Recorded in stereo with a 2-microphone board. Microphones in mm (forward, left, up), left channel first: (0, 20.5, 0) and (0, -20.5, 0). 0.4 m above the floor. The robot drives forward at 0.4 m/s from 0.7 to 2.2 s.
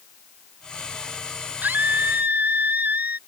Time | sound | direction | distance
1.6 | a scream | 50° right (ahead or behind) | ?